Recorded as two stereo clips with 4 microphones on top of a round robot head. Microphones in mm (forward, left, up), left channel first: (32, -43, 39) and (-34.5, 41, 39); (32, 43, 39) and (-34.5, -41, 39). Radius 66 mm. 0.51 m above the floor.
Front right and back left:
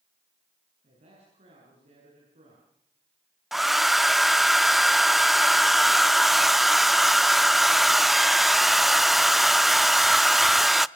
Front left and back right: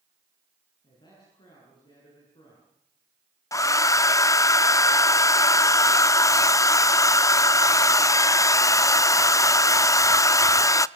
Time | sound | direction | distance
0.8 | a man speaking | 100° left | 8.5 m
3.5 | a hair dryer | 45° left | 0.6 m